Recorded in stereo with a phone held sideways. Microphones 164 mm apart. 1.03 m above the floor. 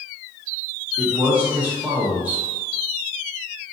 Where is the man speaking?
10° right (ahead or behind), 0.5 m.